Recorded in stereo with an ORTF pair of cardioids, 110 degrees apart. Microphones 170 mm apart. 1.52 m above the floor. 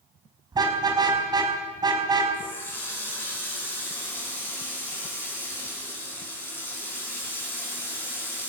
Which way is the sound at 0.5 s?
25° right.